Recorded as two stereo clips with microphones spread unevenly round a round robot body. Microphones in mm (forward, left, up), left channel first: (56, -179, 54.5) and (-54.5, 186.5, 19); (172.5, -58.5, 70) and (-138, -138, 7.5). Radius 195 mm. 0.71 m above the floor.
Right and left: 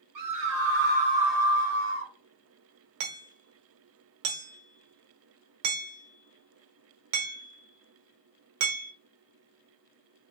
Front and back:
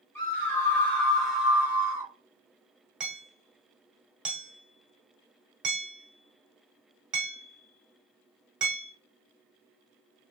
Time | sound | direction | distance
0.1 | a scream | 105° left | 1.7 m
3.0 | hammering | 105° left | 1.0 m